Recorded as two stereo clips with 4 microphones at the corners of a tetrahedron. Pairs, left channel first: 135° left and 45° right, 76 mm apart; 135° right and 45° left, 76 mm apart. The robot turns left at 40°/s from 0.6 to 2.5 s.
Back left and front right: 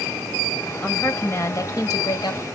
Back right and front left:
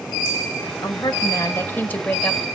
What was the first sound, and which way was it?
A woman speaking, 155° right.